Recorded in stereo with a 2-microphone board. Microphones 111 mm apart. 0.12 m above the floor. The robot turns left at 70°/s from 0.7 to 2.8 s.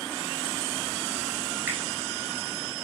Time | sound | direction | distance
1.7 | a finger snap | 20° right (ahead or behind) | 1.4 m